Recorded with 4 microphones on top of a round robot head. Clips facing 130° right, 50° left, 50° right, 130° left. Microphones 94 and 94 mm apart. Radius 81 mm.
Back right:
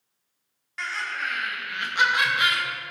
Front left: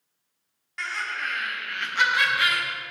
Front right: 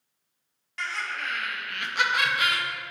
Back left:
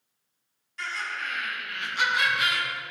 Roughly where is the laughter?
Ahead right.